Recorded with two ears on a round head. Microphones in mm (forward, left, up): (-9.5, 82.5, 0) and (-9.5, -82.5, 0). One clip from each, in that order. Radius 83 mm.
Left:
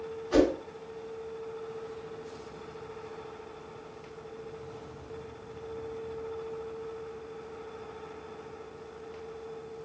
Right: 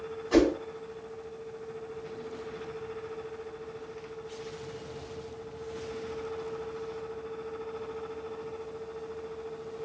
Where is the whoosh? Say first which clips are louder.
Right 1 dB; 20° right (ahead or behind), 2 m.